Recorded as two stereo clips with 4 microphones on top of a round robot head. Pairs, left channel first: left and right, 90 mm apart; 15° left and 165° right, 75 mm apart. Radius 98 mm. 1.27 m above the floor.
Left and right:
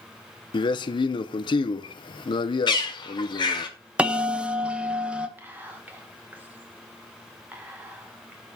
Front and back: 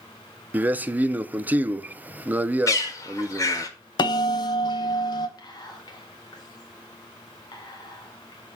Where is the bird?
55° left, 1.3 m.